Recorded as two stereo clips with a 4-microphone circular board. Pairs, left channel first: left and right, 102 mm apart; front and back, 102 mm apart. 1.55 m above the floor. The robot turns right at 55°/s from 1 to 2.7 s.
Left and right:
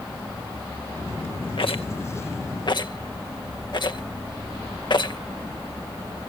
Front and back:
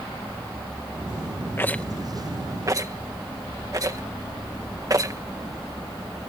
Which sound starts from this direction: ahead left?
A rattle, at 1.6 s.